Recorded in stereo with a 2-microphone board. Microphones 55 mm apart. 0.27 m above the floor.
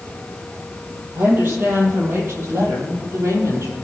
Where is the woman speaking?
35° right (ahead or behind), 8.5 m; by 3.8 s 55° right (ahead or behind), 8 m.